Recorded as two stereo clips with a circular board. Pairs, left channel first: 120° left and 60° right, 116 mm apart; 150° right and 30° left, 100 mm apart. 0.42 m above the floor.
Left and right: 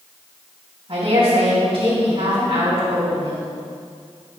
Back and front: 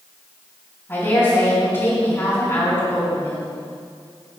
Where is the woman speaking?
90° right, 3.5 m.